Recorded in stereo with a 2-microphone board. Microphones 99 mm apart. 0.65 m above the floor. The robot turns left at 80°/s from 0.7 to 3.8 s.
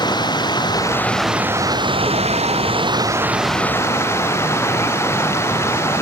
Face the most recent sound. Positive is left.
turn(degrees=155)